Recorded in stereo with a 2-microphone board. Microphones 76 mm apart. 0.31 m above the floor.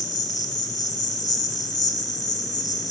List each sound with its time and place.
0.0 s an insect: 55° left (ahead or behind), 1.0 m